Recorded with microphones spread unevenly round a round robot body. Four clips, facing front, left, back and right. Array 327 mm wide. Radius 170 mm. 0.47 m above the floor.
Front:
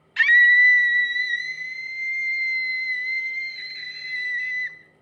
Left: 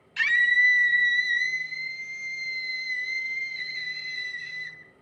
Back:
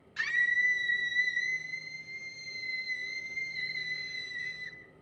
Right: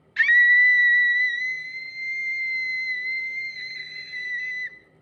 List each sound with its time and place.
0.2 s a scream: 5° left, 2 m; by 4.8 s 5° right, 5 m